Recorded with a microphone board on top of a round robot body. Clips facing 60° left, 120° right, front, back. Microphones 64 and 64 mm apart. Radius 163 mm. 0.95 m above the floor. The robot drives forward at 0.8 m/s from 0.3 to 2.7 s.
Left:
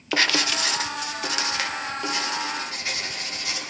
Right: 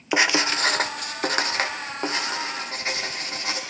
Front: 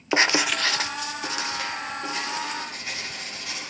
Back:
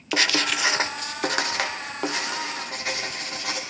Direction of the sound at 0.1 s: 55° right.